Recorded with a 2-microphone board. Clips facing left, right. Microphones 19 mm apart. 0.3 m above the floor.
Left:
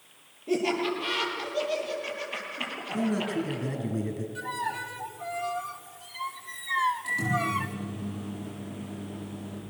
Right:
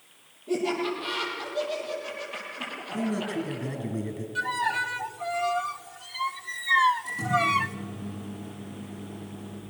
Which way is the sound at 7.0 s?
65° left (ahead or behind).